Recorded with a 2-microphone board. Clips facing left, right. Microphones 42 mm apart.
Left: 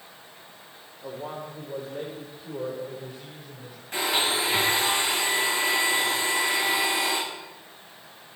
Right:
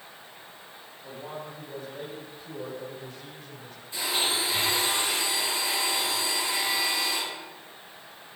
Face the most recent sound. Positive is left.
turn(degrees=60)  # may be behind; listen again after turning